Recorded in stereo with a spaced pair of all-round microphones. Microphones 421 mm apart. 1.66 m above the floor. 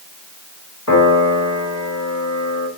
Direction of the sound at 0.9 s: 40° left (ahead or behind).